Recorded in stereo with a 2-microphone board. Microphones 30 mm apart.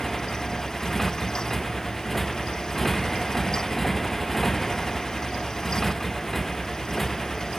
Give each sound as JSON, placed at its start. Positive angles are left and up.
{"t": 0.0, "sound": "a motorcycle", "side_deg": 5}